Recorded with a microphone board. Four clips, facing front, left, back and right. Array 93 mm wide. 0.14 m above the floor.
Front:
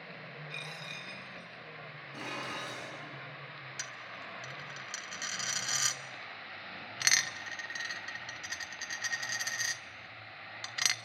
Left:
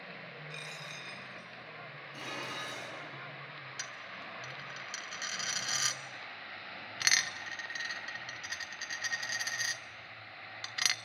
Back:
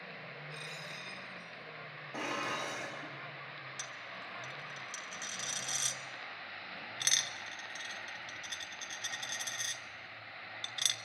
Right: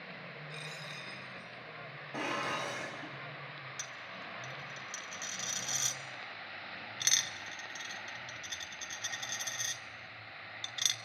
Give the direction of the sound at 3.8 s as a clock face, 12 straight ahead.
11 o'clock.